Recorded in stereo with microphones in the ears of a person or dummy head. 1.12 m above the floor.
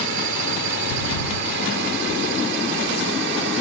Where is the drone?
60° right (ahead or behind).